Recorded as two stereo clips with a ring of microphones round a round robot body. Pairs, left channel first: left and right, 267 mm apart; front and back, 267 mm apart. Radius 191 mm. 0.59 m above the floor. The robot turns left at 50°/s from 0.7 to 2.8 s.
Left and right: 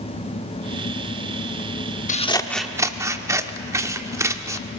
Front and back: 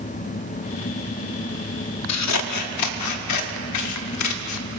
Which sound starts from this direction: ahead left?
Scissors, at 2.1 s.